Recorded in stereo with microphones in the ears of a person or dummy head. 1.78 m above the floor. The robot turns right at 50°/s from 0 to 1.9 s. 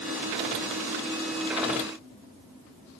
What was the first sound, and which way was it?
Only background noise.